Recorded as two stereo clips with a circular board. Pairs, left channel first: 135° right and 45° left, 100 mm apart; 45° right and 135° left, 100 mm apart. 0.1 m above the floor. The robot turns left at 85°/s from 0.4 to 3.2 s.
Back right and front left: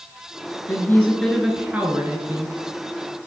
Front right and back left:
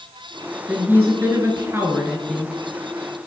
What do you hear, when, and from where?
0.7 s a woman speaking: 165° right, 1.2 m; by 2.6 s 30° left, 1.2 m